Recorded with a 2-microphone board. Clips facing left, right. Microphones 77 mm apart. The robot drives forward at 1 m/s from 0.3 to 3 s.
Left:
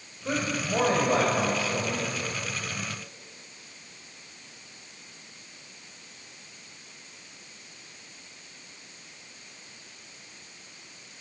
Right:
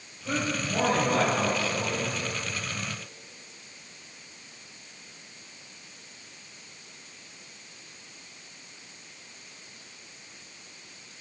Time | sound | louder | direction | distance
0.2 | a man speaking | left 1 dB | 40° left (ahead or behind) | 3.5 m